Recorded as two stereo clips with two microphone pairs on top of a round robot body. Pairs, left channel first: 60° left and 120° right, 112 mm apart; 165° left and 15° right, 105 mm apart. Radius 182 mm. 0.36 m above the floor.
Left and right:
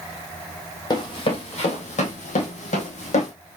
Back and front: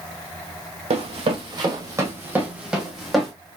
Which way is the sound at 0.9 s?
10° left.